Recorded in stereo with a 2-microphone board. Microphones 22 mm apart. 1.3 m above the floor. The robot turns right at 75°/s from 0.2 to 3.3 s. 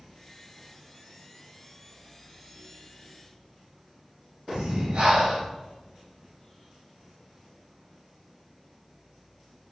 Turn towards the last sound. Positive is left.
turn(degrees=-65)  # may be behind; listen again after turning